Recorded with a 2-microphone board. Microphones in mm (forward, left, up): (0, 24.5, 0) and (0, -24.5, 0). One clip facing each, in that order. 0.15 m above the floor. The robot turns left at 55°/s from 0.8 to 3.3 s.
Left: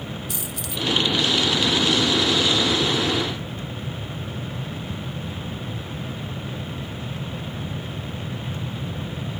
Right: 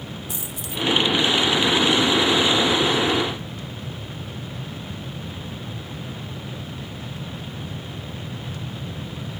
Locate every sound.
0.3 s a dropped coin: 25° right (ahead or behind), 1.9 m; by 0.8 s 20° right (ahead or behind), 1.9 m